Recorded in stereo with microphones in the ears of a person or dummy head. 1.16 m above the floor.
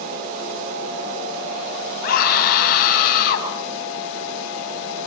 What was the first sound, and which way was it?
A scream, 55° left (ahead or behind).